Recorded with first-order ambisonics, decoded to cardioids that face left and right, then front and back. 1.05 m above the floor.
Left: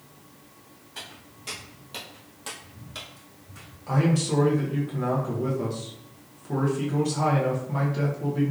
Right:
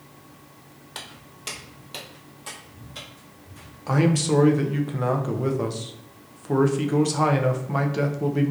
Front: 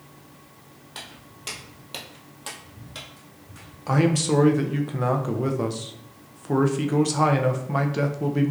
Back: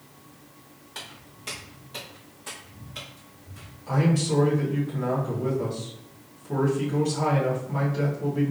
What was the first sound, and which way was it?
Footsteps, 75° right.